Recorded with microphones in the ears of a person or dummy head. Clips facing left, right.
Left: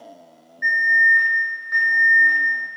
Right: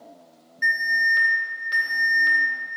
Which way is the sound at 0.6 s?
45° right (ahead or behind).